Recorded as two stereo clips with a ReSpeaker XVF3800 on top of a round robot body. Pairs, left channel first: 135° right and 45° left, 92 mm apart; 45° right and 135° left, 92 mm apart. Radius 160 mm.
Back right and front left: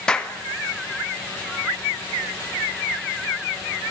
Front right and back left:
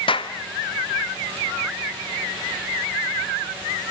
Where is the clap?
55° right, 1.7 m.